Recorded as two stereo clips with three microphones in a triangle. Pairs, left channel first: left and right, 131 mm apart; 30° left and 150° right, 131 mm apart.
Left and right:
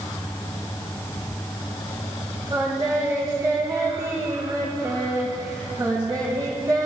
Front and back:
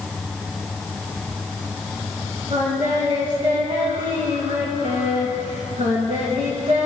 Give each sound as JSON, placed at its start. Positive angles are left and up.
{"t": 2.5, "sound": "singing", "azimuth_deg": -150, "distance_m": 3.0}